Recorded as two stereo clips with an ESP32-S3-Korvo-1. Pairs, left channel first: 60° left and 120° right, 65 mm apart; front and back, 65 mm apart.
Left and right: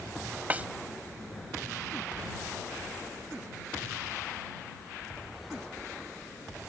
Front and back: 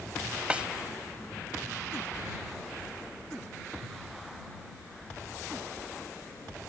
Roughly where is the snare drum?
Behind right.